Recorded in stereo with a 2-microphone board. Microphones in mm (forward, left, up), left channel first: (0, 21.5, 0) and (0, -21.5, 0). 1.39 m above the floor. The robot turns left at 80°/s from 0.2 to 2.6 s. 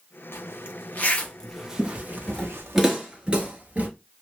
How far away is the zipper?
About 0.7 m.